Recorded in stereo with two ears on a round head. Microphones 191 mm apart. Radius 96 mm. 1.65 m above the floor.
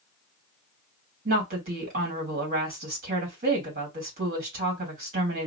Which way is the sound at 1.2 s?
45° right (ahead or behind).